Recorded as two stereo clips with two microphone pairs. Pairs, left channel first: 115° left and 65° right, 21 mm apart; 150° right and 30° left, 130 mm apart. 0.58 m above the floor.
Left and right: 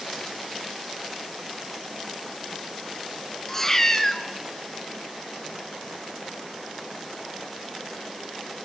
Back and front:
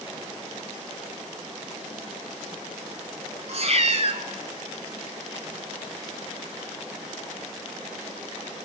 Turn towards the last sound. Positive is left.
turn(degrees=45)